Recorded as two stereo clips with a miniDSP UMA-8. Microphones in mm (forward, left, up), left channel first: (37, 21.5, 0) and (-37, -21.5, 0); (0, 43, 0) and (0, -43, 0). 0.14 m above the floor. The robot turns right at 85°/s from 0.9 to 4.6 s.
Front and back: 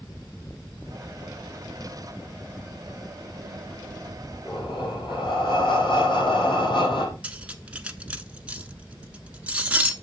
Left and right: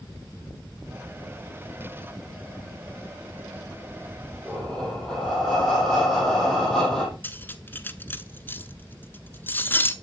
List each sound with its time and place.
4.5 s breathing: 5° right, 5 m; by 7.1 s 5° left, 5 m
7.2 s cutlery clinking: 140° left, 1.0 m